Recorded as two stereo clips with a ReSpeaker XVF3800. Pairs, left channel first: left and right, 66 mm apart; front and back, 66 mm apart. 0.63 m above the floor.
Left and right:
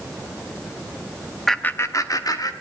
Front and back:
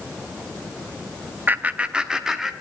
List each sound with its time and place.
1.5 s laughter: straight behind, 0.6 m; by 2.5 s 95° left, 1.7 m